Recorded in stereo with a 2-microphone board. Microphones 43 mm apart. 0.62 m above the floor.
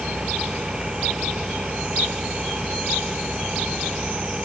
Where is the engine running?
20° right (ahead or behind).